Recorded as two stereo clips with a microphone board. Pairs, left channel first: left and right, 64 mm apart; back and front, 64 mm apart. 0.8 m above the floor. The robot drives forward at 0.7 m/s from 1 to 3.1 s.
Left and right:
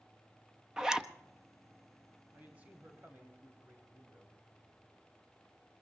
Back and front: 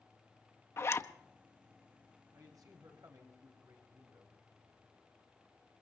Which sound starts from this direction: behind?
A zipper, at 0.8 s.